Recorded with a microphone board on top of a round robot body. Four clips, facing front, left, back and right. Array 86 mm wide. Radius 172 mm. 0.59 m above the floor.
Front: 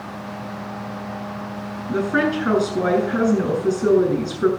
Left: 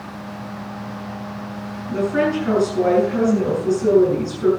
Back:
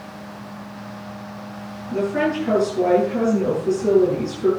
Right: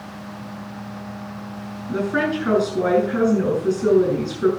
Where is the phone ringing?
I don't hear a phone ringing.